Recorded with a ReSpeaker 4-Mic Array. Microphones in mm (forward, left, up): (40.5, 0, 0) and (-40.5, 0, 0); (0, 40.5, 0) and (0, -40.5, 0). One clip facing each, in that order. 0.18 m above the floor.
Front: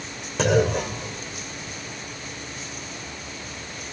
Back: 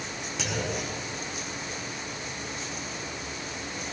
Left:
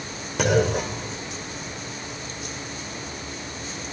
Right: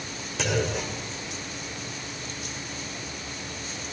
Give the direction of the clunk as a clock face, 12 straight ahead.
10 o'clock.